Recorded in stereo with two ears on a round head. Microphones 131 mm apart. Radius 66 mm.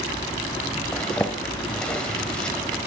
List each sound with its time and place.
0.9 s a zipper: 5° left (ahead or behind), 1.9 m